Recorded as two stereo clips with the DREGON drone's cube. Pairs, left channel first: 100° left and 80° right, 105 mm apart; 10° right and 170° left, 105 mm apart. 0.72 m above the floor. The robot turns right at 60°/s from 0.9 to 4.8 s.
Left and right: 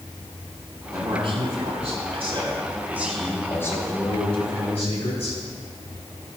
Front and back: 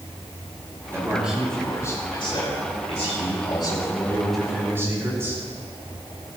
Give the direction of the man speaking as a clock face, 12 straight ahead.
4 o'clock.